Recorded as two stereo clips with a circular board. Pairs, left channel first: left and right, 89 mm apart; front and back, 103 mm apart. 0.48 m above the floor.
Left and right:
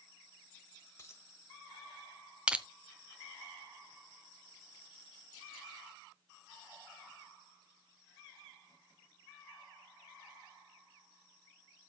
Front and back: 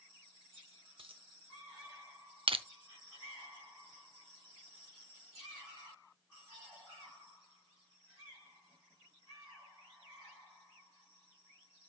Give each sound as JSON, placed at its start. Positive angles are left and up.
{"t": 1.0, "sound": "a dropped coin", "azimuth_deg": 150, "distance_m": 1.1}
{"t": 2.5, "sound": "crushing", "azimuth_deg": -165, "distance_m": 0.6}